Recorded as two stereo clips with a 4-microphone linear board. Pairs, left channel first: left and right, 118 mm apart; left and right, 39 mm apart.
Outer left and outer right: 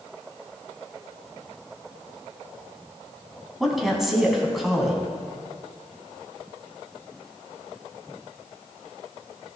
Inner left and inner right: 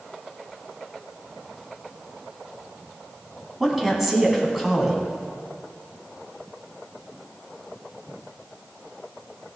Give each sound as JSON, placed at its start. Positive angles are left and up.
{"t": 3.6, "sound": "a woman speaking", "side_deg": 0, "distance_m": 3.5}